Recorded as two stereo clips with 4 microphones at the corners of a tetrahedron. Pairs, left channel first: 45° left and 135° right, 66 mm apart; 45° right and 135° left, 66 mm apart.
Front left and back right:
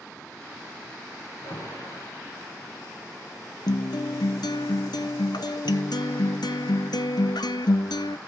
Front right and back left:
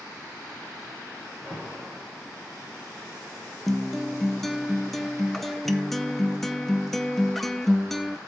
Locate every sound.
1.4 s an alarm: 40° left, 7.5 m
3.7 s a guitar: 45° left, 0.6 m